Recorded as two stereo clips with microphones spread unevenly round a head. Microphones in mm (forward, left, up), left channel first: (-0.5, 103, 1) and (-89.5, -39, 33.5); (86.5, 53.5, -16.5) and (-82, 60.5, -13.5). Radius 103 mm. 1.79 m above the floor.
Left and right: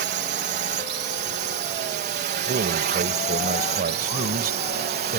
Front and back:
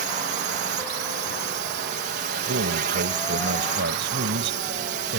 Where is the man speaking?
150° right.